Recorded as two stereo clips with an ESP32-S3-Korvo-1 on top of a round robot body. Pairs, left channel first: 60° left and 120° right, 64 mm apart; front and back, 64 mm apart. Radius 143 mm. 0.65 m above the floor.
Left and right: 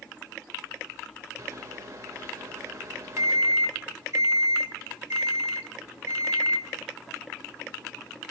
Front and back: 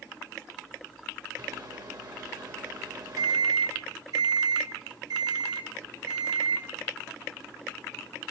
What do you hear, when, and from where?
1.4 s a microwave: 165° right, 2 m